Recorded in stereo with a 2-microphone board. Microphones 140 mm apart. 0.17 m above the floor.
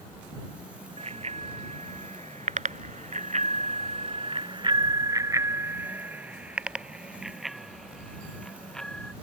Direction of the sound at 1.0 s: 45° right (ahead or behind).